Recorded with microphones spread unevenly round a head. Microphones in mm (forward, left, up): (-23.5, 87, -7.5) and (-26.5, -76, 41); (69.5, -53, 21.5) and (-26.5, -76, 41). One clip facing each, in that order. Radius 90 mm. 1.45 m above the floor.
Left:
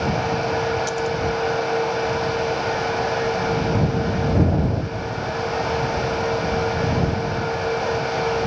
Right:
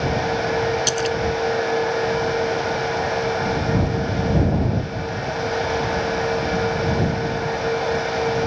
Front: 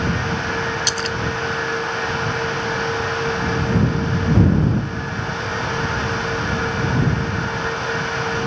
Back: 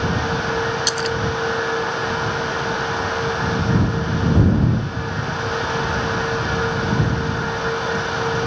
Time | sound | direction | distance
0.9 | a splash | 80° right | ?